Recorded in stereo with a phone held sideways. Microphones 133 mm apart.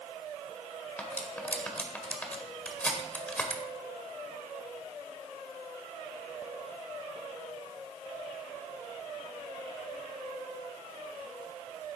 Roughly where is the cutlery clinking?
Centre.